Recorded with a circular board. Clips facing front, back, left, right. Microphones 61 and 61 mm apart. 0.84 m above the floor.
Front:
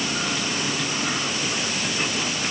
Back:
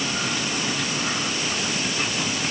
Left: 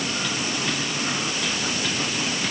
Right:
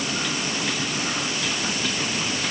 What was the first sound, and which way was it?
Only background noise.